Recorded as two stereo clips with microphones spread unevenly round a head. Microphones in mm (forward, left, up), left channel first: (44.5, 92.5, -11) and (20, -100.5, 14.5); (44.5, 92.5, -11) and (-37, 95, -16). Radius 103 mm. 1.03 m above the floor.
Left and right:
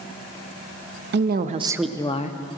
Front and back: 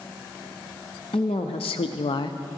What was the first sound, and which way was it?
A woman speaking, 60° right.